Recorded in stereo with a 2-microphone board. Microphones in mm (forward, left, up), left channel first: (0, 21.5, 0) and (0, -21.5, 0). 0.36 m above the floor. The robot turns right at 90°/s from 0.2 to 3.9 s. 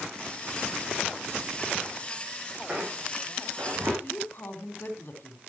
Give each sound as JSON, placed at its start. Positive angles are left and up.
{"t": 2.7, "sound": "a squeak", "side_deg": -10, "distance_m": 4.5}
{"t": 4.0, "sound": "a woman speaking", "side_deg": 50, "distance_m": 3.0}